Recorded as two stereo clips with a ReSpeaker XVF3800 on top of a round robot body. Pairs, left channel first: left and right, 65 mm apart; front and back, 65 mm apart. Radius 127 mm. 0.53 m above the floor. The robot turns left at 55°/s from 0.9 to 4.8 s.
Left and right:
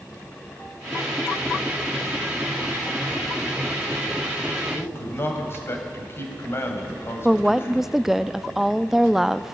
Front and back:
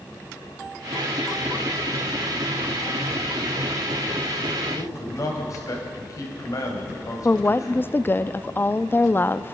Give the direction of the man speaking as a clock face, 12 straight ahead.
11 o'clock.